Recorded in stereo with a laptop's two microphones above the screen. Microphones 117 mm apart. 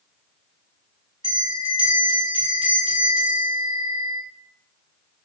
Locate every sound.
1.2 s a bell: 50° right (ahead or behind), 1.0 m